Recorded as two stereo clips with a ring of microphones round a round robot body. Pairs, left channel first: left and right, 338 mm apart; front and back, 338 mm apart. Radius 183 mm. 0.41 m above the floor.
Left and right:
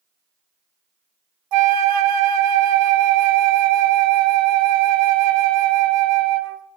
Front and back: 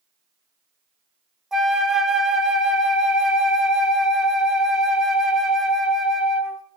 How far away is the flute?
About 0.6 m.